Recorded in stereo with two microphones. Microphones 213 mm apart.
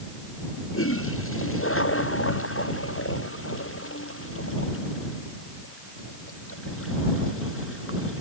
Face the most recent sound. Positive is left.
turn(degrees=80)